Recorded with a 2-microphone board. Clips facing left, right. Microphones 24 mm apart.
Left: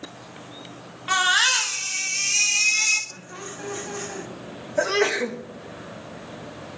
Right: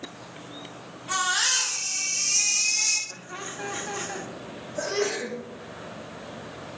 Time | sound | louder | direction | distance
1.1 | a baby crying | left 5 dB | 55° left (ahead or behind) | 1.9 m
3.1 | laughter | right 1 dB | 20° right (ahead or behind) | 1.6 m
4.8 | a sneeze | left 6 dB | 55° left (ahead or behind) | 1.3 m